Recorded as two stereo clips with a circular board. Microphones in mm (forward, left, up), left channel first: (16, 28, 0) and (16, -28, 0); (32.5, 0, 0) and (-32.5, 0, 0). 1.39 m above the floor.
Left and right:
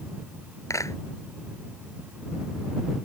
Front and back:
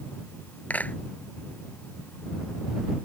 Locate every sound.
0.7 s a clap: 65° left